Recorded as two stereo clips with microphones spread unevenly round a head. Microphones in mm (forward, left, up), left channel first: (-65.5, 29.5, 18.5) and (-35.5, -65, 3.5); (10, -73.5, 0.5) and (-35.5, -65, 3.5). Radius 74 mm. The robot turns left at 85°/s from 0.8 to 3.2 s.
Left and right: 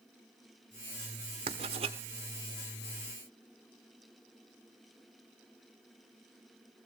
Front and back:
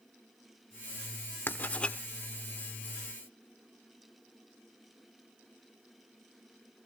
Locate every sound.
1.5 s writing: 40° right, 1.2 m; by 2.0 s 85° right, 1.2 m